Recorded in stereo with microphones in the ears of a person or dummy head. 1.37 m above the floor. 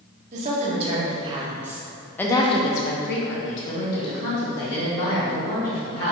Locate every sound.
0.3 s a woman speaking: 40° right (ahead or behind), 1.3 m; by 6.1 s 75° left (ahead or behind), 2 m